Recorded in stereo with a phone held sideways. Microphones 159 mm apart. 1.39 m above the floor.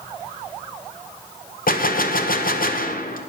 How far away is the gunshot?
About 0.7 m.